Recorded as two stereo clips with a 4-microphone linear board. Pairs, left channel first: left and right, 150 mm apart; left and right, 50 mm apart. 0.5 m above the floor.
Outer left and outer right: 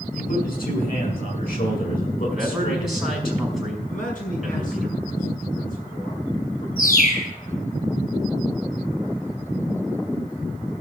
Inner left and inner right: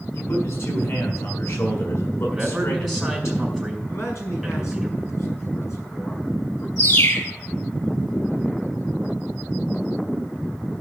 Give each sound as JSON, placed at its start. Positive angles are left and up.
{"t": 0.1, "sound": "a man speaking", "side_deg": 75, "distance_m": 7.0}
{"t": 2.3, "sound": "a man speaking", "side_deg": 0, "distance_m": 5.0}
{"t": 3.9, "sound": "a man speaking", "side_deg": 65, "distance_m": 5.5}
{"t": 6.8, "sound": "a bird", "side_deg": 65, "distance_m": 2.0}